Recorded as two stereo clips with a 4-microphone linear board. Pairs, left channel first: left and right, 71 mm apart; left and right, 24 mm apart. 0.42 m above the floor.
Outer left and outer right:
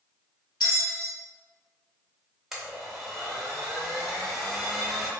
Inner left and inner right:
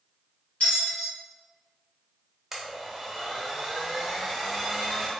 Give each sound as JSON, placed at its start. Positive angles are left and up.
{"t": 0.6, "sound": "a bell", "side_deg": 90, "distance_m": 1.3}
{"t": 2.5, "sound": "a blender", "side_deg": -5, "distance_m": 1.0}